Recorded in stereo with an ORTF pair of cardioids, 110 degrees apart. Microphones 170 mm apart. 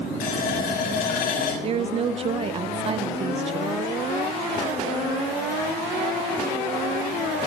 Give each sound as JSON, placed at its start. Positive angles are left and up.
{"t": 0.2, "sound": "a running tap", "azimuth_deg": 65, "distance_m": 6.0}
{"t": 1.6, "sound": "a woman speaking", "azimuth_deg": -35, "distance_m": 0.6}